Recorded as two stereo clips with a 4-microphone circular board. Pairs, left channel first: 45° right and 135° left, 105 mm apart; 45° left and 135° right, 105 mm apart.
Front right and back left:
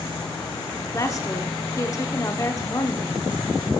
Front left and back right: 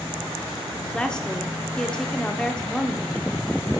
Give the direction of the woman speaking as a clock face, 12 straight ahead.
1 o'clock.